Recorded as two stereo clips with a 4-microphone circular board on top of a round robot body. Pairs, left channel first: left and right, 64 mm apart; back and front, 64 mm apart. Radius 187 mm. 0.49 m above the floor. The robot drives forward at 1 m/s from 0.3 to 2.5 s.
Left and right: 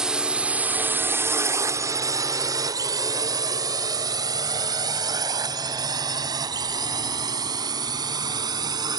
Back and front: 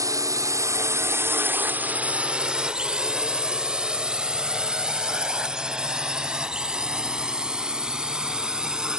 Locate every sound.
0.0 s a drone: 10° right; by 9.0 s 75° right